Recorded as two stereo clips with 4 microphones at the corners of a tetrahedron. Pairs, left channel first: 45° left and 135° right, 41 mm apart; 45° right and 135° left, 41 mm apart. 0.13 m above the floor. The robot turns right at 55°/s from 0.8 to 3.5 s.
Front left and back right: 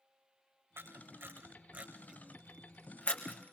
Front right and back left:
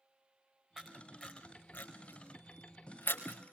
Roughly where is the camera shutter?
Behind right.